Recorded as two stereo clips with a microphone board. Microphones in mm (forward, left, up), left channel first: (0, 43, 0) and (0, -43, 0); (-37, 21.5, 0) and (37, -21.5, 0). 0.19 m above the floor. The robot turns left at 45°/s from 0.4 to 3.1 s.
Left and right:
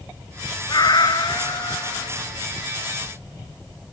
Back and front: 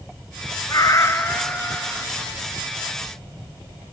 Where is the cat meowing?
115° left, 1.1 m; by 2.1 s 50° left, 1.1 m.